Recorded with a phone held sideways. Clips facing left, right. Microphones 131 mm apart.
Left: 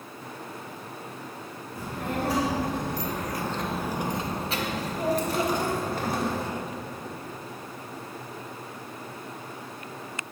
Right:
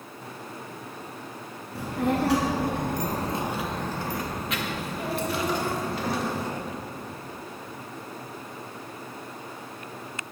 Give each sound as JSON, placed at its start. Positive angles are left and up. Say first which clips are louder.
{"t": 1.8, "sound": "a child speaking", "louder": "right 6 dB", "side_deg": -80, "distance_m": 1.1}